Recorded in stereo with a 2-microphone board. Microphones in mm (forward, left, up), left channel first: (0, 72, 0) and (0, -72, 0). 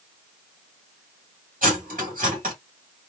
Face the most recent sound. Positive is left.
turn(degrees=-80)